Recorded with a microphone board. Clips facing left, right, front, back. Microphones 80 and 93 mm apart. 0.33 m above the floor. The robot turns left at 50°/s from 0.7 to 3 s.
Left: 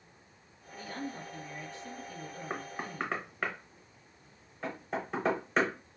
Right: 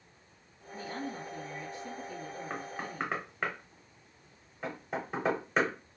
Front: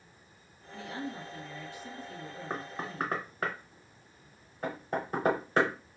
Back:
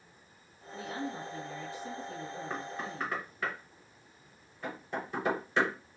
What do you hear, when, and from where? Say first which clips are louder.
0.7 s a woman speaking: right 1 dB, back 1 dB; 125° right, 1.1 m; by 3.5 s 125° left, 1.1 m
2.5 s knocking: left 2 dB, front 4 dB; 20° left, 0.7 m; by 5.7 s 5° right, 0.7 m